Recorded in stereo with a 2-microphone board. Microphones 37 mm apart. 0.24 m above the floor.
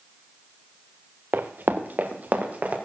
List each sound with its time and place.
1.3 s running footsteps: 70° right (ahead or behind), 1.2 m; by 2.8 s 45° right (ahead or behind), 3 m